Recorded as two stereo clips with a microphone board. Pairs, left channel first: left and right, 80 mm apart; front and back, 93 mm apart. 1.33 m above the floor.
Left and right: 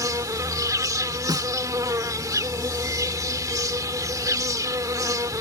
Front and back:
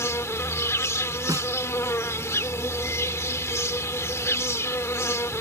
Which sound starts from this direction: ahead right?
An insect, at 0.0 s.